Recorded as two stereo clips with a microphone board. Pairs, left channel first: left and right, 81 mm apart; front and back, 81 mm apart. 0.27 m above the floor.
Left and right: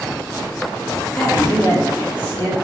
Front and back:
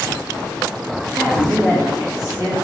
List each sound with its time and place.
1.1 s a man speaking: 150° left, 2.5 m